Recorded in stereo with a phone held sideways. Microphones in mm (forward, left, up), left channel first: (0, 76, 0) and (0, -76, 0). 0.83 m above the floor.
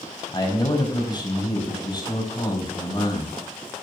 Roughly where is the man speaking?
Left.